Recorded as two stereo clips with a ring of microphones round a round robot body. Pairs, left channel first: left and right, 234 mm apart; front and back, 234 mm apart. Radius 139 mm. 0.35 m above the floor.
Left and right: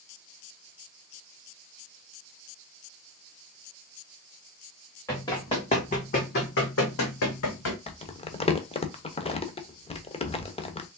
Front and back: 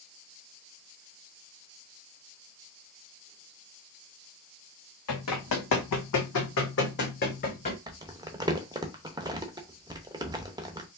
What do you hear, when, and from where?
5.1 s running footsteps: 10° left, 1.5 m; by 7.8 s 65° left, 1.4 m
7.9 s crumpling: 125° left, 0.8 m